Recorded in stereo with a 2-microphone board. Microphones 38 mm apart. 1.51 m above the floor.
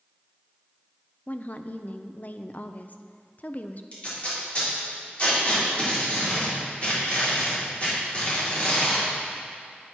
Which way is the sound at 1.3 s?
45° left (ahead or behind).